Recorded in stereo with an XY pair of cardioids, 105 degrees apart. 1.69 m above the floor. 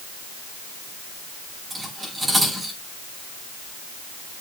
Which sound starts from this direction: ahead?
Cutlery clinking, at 1.7 s.